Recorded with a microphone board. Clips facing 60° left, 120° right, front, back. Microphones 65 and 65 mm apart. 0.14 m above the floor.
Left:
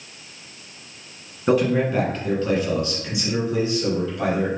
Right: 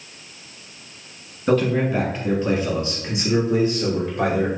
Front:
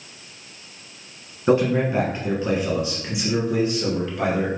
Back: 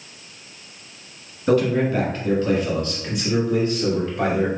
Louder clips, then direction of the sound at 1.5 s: Even, even; 5° left.